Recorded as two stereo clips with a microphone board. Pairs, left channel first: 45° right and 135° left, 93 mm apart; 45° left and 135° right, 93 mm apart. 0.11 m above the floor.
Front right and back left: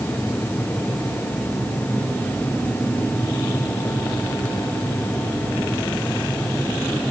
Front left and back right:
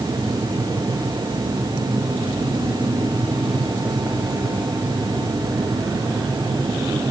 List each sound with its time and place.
Only background noise.